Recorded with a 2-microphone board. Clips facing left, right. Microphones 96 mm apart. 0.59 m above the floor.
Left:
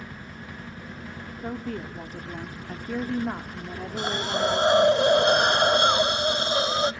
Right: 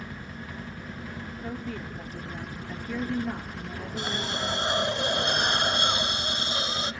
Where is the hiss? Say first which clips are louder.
Left 6 dB; 40° left (ahead or behind), 0.5 m.